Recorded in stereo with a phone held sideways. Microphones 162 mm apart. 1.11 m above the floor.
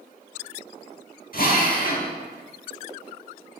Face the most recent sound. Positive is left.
turn(degrees=65)  # may be behind; listen again after turning